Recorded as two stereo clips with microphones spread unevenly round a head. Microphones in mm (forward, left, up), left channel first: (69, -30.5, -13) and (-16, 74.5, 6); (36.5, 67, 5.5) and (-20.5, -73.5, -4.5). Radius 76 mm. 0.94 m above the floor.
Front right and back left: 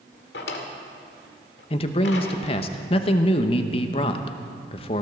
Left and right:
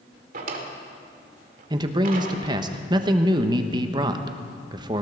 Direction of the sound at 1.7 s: 65° right.